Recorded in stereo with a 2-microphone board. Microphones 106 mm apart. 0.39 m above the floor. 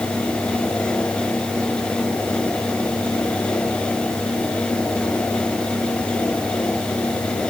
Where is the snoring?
I don't hear snoring.